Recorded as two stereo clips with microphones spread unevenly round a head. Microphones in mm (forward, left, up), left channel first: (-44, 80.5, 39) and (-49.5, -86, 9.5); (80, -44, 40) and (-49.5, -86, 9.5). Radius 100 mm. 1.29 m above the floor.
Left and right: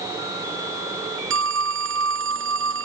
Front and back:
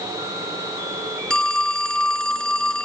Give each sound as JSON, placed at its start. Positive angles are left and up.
{"t": 1.3, "sound": "a phone ringing", "azimuth_deg": -65}